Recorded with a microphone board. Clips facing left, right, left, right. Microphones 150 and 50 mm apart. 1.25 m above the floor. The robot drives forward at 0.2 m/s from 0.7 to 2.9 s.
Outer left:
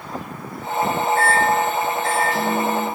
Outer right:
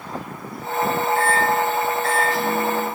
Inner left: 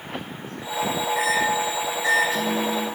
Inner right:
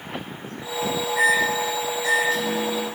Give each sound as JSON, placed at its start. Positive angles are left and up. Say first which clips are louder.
{"t": 1.1, "sound": "a microwave", "louder": "outer left 2 dB, inner right 4 dB", "side_deg": 20, "distance_m": 2.0}